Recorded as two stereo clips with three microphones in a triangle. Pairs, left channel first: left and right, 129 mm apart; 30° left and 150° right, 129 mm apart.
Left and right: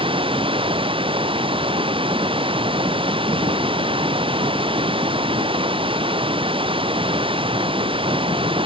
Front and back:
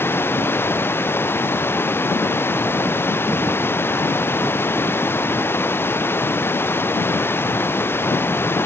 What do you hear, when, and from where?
0.0 s running water: 45° right